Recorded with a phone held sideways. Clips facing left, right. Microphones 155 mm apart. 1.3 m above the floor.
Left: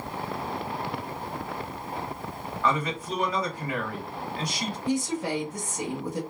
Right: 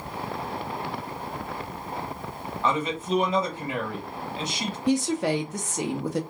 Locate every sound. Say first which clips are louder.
2.6 s a man speaking: right 1 dB; 25° right (ahead or behind), 1.1 m
4.9 s a woman speaking: right 5 dB; 75° right (ahead or behind), 0.8 m